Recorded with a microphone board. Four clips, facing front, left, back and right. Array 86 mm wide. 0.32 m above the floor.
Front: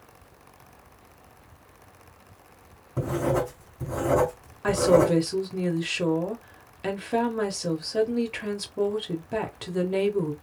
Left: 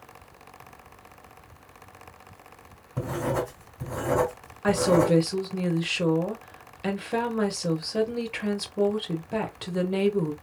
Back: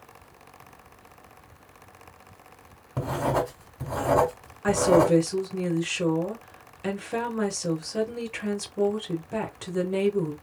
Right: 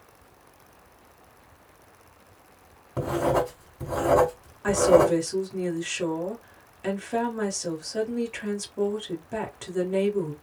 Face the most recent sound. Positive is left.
turn(degrees=55)